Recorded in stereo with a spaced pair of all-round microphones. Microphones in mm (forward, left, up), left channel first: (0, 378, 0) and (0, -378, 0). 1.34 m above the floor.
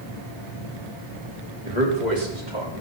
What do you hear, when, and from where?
1.6 s a man speaking: 60° right (ahead or behind), 3.5 m; by 2.8 s 80° right, 4 m